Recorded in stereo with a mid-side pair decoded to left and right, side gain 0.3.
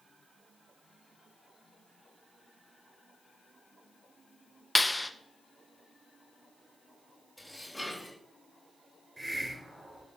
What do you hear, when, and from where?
4.8 s a clap: 20° left, 0.9 m
7.4 s dishes clattering: 20° left, 4 m
9.2 s a hiss: 5° right, 3.5 m